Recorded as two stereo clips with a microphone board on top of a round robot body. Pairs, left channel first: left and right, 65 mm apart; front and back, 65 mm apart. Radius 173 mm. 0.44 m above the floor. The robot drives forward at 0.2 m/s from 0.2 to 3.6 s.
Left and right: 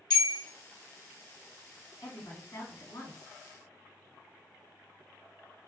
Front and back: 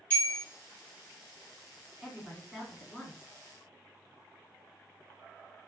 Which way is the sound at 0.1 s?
70° left.